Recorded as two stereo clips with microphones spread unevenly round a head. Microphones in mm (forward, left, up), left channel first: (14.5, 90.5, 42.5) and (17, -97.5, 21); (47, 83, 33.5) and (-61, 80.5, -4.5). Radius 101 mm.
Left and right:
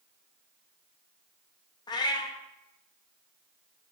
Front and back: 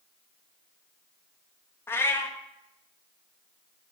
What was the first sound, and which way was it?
A cat meowing, 35° left.